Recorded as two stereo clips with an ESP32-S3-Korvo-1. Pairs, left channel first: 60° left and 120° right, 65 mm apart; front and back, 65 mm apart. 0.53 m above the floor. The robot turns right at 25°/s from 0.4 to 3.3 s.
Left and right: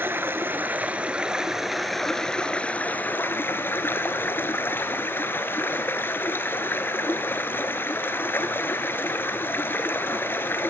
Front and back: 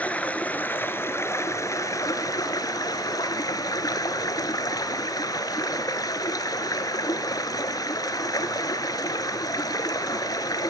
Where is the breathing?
No breathing in this recording.